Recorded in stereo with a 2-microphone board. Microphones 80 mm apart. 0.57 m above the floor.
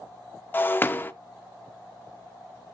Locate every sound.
0.5 s breaking glass: 25° left (ahead or behind), 0.6 m